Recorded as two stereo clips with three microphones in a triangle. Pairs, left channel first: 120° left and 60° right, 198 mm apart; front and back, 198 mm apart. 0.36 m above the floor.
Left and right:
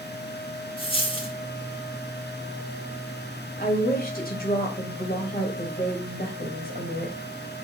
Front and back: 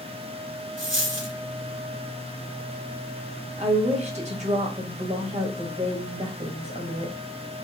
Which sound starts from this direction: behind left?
A woman speaking, at 3.6 s.